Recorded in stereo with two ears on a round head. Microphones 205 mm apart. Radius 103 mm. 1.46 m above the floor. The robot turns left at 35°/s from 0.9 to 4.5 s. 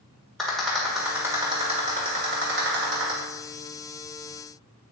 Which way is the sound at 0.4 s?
Centre (ahead or behind).